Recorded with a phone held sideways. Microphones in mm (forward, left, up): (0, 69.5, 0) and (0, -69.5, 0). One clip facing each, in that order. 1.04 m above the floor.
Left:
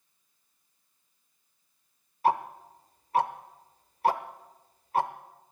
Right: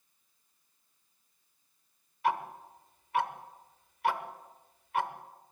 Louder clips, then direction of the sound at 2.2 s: Left 5 dB; 35° left (ahead or behind).